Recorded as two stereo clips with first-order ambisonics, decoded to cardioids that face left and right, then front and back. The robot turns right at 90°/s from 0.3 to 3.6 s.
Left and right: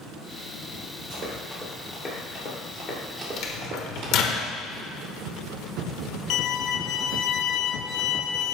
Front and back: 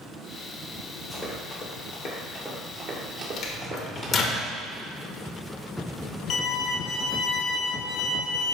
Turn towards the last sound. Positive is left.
turn(degrees=45)